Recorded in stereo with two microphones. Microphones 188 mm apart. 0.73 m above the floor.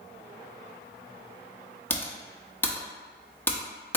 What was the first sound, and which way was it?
Typing on a keyboard, 10° left (ahead or behind).